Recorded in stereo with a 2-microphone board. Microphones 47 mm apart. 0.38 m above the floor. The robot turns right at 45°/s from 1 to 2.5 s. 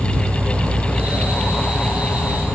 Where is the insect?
130° right; by 2.5 s 60° right.